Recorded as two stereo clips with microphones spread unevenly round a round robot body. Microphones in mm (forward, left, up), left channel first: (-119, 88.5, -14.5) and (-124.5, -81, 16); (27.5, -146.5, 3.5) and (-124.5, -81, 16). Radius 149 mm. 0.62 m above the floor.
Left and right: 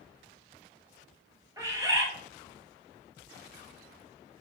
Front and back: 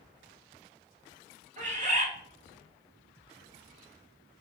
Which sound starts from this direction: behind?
A bird, at 1.6 s.